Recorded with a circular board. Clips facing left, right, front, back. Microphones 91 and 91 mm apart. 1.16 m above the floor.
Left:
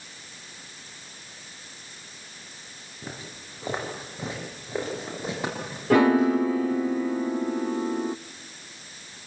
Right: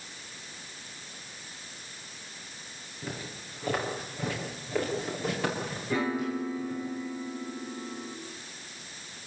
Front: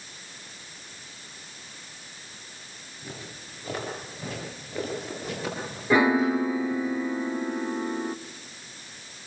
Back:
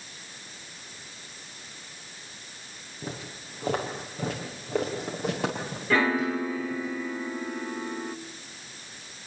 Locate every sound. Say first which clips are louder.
3.0 s footsteps: right 1 dB, back 4 dB; 160° left, 6 m
5.9 s a piano: left 12 dB, front 4 dB; 75° left, 0.6 m